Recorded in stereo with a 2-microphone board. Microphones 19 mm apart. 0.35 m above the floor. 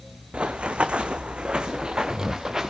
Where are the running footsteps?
70° right (ahead or behind), 1.8 m; by 2.7 s 30° right (ahead or behind), 2.5 m.